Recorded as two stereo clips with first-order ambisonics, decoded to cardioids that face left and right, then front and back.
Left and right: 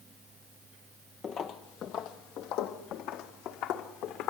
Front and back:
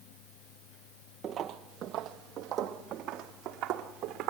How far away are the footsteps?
About 0.8 m.